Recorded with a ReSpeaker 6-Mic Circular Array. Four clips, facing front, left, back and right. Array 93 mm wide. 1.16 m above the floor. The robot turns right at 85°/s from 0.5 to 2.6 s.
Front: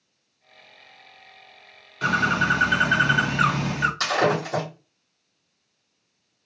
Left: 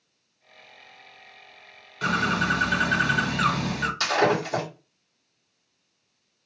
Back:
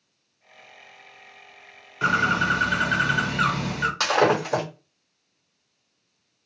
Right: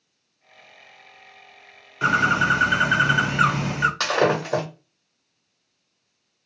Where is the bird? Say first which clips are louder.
Right 5 dB, even; 125° right, 0.9 m; by 3.9 s 75° right, 0.9 m.